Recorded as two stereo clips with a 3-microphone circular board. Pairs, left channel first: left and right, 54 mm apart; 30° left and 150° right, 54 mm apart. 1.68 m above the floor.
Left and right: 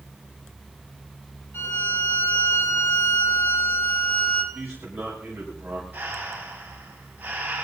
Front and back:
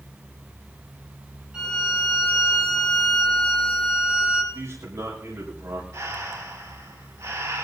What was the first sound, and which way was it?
A violin, 135° left.